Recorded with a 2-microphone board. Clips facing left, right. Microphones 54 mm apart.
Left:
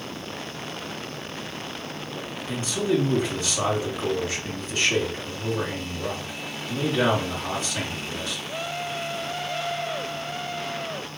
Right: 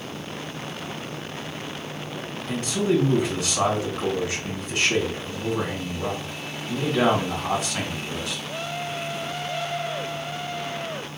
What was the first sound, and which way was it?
A man speaking, 65° right (ahead or behind).